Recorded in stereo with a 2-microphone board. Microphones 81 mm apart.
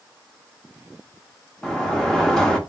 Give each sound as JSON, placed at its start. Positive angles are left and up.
{"t": 1.6, "sound": "a sliding door", "side_deg": 10, "distance_m": 0.7}